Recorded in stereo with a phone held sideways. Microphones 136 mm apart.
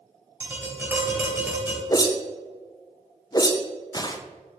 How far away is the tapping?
About 2.5 m.